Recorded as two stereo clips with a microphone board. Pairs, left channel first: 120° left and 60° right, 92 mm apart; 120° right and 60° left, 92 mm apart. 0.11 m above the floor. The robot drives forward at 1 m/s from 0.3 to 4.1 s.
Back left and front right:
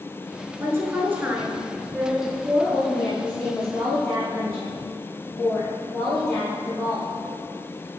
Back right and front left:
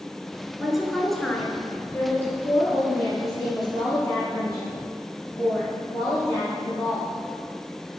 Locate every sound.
0.6 s a woman speaking: 20° right, 2.0 m; by 7.2 s 170° right, 3 m